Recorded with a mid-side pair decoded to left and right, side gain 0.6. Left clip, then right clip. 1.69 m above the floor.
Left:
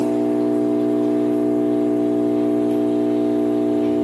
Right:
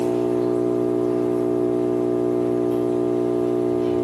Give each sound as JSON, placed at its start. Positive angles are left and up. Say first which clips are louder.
{"t": 0.0, "sound": "an engine running", "louder": "left 1 dB", "azimuth_deg": 45, "distance_m": 1.2}